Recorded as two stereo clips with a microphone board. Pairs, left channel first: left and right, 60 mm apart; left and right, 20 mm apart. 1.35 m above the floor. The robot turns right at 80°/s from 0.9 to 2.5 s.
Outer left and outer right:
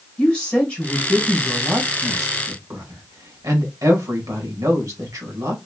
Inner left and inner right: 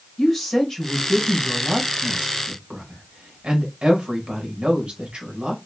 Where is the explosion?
I don't hear an explosion.